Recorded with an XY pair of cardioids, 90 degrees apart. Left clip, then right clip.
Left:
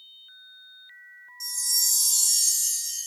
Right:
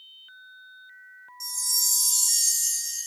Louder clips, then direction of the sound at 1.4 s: Left 1 dB; straight ahead.